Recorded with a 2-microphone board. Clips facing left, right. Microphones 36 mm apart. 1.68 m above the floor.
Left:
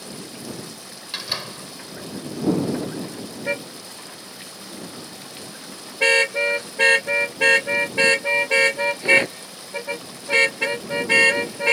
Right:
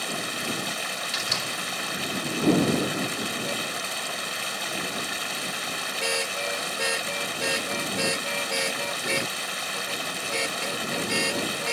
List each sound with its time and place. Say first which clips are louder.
0.0 s running water: right 6 dB; 70° right (ahead or behind)
1.1 s a door slam: left 2 dB; 15° left (ahead or behind)
3.5 s a car horn: left 1 dB; 50° left (ahead or behind)